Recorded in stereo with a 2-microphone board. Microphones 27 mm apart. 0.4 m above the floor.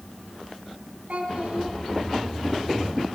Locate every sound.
1.1 s a child speaking: 75° right (ahead or behind), 3 m